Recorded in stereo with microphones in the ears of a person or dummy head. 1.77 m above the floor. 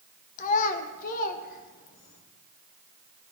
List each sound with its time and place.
0.4 s a child speaking: 45° left (ahead or behind), 1.1 m; by 2.2 s 50° left (ahead or behind), 2 m